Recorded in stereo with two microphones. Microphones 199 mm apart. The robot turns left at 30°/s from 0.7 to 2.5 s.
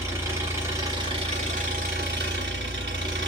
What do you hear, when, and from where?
0.0 s an engine running: 15° right, 1.5 m; by 3.3 s 70° right, 1.5 m